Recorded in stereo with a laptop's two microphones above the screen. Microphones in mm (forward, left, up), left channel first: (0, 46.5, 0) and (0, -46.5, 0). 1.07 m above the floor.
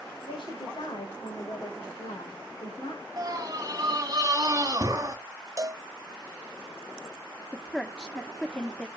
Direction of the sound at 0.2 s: 60° left (ahead or behind).